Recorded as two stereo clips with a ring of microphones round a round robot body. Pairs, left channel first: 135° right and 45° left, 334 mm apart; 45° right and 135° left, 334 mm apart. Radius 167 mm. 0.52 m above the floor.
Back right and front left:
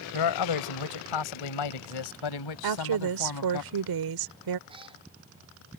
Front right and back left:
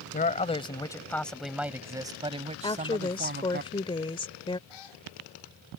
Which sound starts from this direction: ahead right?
A cat meowing, at 4.7 s.